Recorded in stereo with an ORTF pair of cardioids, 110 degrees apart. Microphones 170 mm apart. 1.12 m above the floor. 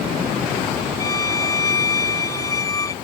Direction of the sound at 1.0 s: 20° left.